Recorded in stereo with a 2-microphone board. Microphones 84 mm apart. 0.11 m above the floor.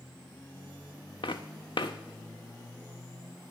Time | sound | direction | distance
1.2 | footsteps | 70° left (ahead or behind) | 0.7 m